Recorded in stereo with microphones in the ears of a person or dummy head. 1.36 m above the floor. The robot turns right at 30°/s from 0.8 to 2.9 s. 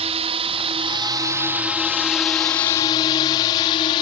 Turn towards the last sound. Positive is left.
turn(degrees=40)  # may be behind; listen again after turning